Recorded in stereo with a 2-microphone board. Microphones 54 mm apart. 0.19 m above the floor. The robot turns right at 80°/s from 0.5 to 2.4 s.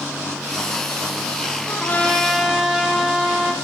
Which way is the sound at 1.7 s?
125° left.